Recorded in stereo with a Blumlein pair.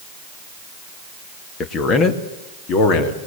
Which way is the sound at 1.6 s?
25° left.